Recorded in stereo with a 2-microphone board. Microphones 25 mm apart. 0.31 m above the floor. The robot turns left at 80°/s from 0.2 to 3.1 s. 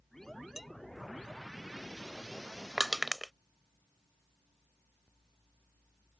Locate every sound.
0.6 s dishes clattering: 10° right (ahead or behind); by 0.7 s 5° left (ahead or behind)
2.8 s crushing: 25° right (ahead or behind); by 3.3 s 10° right (ahead or behind)